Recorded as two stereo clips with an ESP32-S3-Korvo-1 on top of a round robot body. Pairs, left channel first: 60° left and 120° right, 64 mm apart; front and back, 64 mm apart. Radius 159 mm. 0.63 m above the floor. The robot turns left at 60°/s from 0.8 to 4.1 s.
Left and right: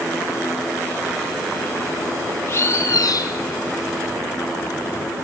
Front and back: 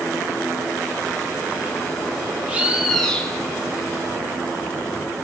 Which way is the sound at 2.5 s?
115° left.